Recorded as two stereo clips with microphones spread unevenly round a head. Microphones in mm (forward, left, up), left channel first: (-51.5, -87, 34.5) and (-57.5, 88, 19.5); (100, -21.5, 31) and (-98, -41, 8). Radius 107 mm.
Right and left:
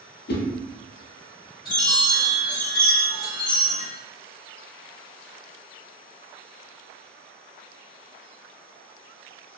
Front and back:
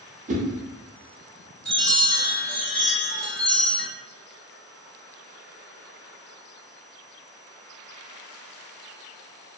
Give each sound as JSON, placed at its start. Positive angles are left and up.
{"t": 0.3, "sound": "a whoosh", "azimuth_deg": -120, "distance_m": 0.6}
{"t": 1.6, "sound": "a chime", "azimuth_deg": -65, "distance_m": 1.5}